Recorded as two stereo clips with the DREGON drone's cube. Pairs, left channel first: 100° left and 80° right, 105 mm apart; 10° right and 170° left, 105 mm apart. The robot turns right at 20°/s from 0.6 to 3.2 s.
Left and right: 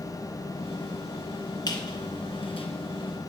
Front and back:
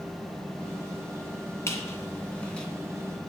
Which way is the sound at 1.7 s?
55° left.